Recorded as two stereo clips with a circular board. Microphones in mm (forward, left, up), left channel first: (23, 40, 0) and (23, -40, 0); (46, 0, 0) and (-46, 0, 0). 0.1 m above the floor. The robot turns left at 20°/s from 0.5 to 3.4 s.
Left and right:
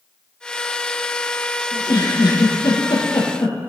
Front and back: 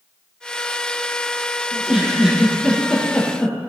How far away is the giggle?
About 3 m.